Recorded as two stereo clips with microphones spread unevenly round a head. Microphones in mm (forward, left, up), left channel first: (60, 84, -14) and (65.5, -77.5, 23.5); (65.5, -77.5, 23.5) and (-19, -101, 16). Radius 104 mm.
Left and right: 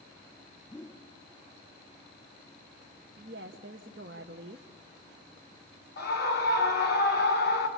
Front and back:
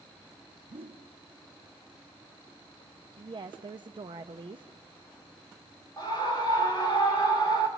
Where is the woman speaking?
135° right, 0.7 m.